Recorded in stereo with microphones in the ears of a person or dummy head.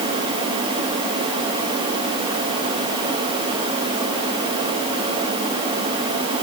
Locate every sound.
Only background noise.